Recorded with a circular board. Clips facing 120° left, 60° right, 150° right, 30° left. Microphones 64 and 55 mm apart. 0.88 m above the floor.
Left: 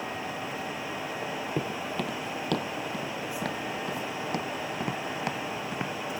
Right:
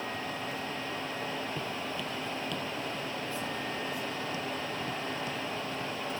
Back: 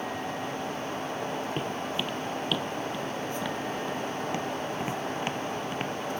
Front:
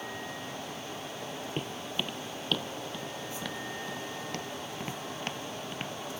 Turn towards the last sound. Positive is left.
turn(degrees=135)